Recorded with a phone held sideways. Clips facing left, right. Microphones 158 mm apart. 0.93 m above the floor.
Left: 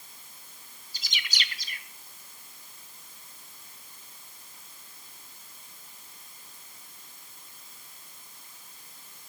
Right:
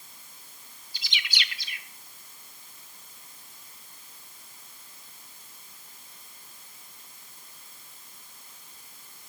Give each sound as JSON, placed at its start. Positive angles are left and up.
{"t": 0.9, "sound": "a bird", "side_deg": 45, "distance_m": 0.8}